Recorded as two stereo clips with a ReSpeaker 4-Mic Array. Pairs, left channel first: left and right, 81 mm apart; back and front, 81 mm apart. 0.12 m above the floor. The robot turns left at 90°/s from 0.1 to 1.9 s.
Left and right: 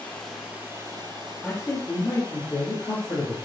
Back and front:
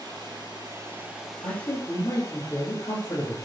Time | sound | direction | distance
0.0 | running water | 20° left | 2 m
1.4 | a man speaking | straight behind | 3 m